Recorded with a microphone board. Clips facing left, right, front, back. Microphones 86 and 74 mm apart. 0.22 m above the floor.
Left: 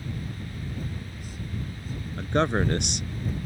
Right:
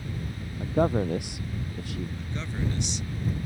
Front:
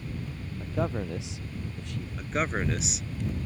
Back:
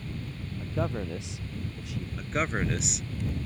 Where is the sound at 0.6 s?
85° right; by 2.1 s 95° right.